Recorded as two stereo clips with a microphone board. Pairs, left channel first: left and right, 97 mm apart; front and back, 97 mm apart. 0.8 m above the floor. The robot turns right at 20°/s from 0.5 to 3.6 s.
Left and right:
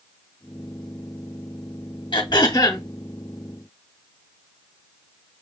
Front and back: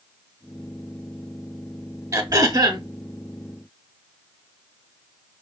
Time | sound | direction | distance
2.1 | throat clearing | 125° left | 0.8 m